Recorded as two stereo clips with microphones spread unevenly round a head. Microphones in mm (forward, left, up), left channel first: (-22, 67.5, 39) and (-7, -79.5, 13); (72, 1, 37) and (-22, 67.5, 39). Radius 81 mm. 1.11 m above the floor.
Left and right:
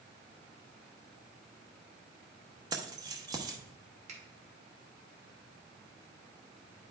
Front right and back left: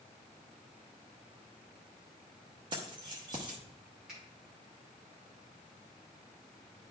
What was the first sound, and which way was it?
Keys jangling, 155° right.